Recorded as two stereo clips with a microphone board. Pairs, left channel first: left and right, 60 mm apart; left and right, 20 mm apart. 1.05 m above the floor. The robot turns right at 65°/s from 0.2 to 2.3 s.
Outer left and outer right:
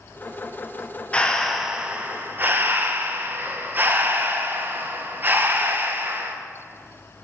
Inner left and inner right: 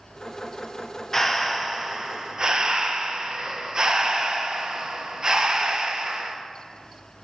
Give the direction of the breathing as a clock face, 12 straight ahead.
7 o'clock.